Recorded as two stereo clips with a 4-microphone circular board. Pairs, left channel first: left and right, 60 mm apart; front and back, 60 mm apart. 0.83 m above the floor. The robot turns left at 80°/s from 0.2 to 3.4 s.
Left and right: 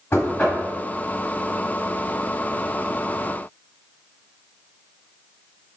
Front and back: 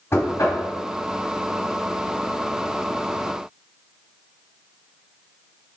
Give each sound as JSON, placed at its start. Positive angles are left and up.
{"t": 0.1, "sound": "knocking", "azimuth_deg": 50, "distance_m": 2.5}